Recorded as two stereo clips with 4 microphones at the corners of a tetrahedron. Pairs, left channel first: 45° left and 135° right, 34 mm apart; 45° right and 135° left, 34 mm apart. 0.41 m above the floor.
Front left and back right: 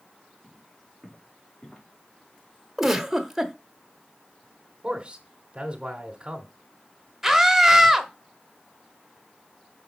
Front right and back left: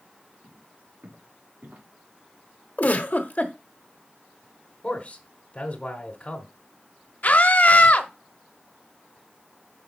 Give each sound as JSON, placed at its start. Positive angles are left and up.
{"t": 0.4, "sound": "footsteps", "azimuth_deg": 130, "distance_m": 3.5}
{"t": 2.8, "sound": "a giggle", "azimuth_deg": -55, "distance_m": 1.1}
{"t": 4.8, "sound": "a man speaking", "azimuth_deg": -90, "distance_m": 1.4}
{"t": 7.2, "sound": "a scream", "azimuth_deg": -55, "distance_m": 1.2}